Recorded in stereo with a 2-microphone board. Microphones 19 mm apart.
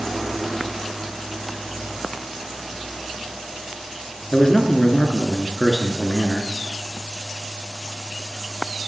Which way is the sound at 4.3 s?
30° left (ahead or behind).